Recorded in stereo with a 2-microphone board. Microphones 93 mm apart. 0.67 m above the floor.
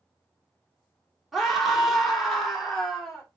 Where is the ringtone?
I don't hear a ringtone.